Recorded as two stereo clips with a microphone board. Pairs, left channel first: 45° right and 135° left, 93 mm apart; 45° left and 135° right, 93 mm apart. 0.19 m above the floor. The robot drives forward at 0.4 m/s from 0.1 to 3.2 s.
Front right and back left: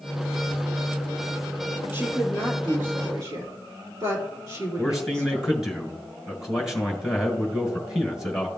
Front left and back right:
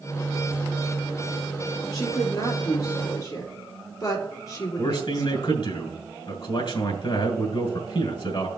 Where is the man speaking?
50° left, 2 m.